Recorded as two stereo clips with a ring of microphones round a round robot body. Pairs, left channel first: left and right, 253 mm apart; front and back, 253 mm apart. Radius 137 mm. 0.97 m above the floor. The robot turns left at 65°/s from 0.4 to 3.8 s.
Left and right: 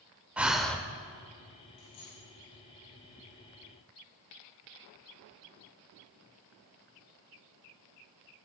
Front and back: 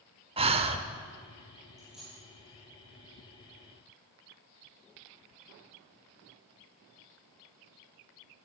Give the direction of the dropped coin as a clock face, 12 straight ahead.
9 o'clock.